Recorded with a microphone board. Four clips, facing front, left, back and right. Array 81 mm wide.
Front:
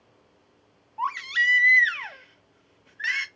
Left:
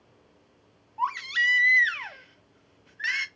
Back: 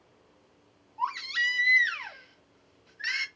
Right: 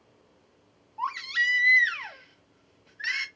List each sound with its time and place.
1.0 s a baby crying: 25° left, 0.6 m